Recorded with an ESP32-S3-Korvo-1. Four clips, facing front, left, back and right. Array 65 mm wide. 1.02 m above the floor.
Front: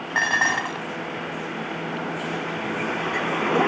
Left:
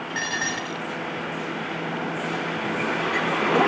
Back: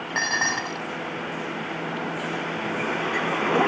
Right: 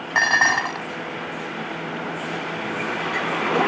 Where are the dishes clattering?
80° right.